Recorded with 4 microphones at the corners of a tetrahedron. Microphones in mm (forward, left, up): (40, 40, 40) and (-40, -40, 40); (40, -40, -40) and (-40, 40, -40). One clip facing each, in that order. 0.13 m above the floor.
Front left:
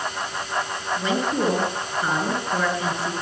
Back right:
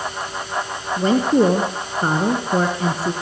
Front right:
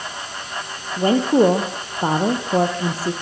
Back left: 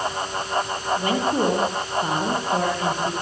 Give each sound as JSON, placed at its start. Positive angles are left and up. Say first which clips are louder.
{"t": 1.0, "sound": "a woman speaking", "louder": "back right 8 dB, front right 8 dB", "azimuth_deg": -90, "distance_m": 3.0}